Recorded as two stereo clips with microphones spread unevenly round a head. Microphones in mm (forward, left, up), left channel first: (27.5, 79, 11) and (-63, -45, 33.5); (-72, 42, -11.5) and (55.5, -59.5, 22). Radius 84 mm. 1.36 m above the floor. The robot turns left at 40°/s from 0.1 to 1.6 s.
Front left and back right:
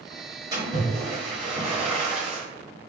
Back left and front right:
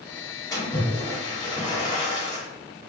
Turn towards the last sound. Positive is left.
turn(degrees=165)